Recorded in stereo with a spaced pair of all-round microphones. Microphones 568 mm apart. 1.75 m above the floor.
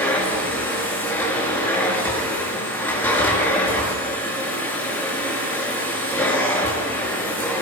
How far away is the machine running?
About 6.5 m.